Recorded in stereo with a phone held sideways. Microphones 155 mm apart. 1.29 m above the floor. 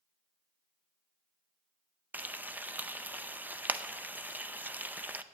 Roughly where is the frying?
Centre.